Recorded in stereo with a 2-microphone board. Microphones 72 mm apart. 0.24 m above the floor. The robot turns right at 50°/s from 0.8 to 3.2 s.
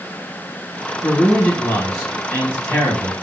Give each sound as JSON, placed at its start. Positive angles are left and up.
{"t": 1.0, "sound": "a man speaking", "azimuth_deg": 0, "distance_m": 1.8}